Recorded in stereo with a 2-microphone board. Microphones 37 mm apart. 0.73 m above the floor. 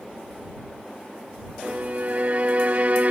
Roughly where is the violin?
Right.